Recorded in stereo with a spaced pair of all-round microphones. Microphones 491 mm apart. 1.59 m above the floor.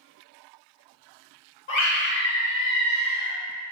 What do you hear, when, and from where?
1.7 s a scream: 70° left (ahead or behind), 0.9 m